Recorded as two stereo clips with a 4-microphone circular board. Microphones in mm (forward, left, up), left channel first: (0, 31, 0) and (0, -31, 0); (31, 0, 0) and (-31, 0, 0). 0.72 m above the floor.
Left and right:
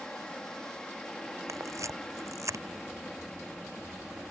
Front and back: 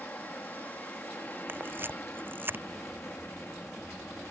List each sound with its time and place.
0.0 s an aircraft: 25° left; by 4.3 s 15° left
1.5 s a camera shutter: 125° right